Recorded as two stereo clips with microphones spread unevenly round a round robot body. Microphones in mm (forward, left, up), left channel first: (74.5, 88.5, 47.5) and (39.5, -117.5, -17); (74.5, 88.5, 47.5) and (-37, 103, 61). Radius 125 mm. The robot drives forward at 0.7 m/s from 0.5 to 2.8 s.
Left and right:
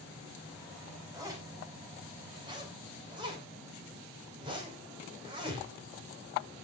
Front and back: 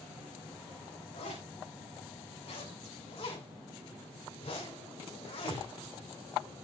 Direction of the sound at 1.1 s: 30° right.